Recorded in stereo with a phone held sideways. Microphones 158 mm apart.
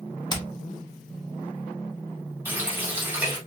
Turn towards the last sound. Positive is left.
turn(degrees=-15)  # may be behind; listen again after turning